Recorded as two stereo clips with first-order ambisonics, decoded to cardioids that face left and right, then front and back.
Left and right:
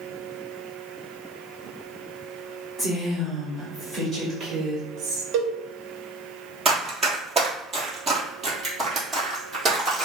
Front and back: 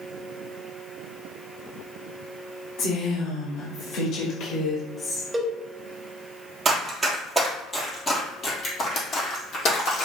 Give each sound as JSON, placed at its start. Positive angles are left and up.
{"t": 2.8, "sound": "a woman speaking", "azimuth_deg": 0, "distance_m": 1.9}
{"t": 5.3, "sound": "a cowbell", "azimuth_deg": -105, "distance_m": 0.7}
{"t": 6.7, "sound": "running footsteps", "azimuth_deg": -140, "distance_m": 1.5}